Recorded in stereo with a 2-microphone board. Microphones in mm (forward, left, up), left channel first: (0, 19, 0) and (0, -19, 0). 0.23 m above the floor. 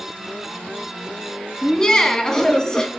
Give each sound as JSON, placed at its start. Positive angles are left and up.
{"t": 1.6, "sound": "laughter", "side_deg": 20, "distance_m": 1.9}